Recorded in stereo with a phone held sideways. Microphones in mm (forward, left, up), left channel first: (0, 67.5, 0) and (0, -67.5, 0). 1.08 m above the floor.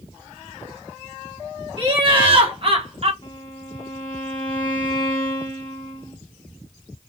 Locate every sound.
1.8 s laughter: 35° right (ahead or behind), 2 m; by 3.1 s 50° right (ahead or behind), 1.2 m
3.2 s a violin: 40° left (ahead or behind), 1.5 m